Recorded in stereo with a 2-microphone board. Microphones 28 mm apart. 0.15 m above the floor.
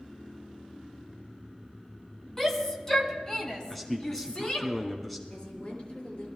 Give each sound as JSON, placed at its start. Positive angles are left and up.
{"t": 2.4, "sound": "a shout", "side_deg": 15, "distance_m": 1.8}
{"t": 3.7, "sound": "a man speaking", "side_deg": 0, "distance_m": 1.1}
{"t": 5.3, "sound": "a woman speaking", "side_deg": 40, "distance_m": 3.0}